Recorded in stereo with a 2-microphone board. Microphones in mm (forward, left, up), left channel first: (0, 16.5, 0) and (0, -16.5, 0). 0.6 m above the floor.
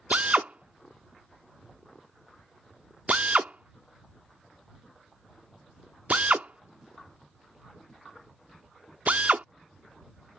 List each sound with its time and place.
0.1 s a drill: 45° right (ahead or behind)